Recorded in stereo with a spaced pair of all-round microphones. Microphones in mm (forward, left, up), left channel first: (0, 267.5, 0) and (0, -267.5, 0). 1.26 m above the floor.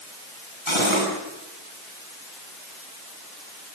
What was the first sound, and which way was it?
Cutlery clinking, 60° left (ahead or behind).